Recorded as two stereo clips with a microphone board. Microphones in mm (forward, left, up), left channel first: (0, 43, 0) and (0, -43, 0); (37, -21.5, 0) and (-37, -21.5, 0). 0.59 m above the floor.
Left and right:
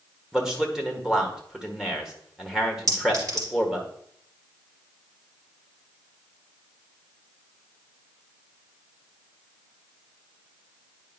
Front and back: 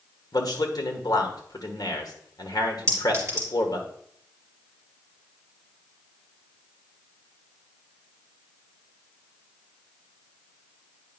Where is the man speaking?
5° right, 1.4 m.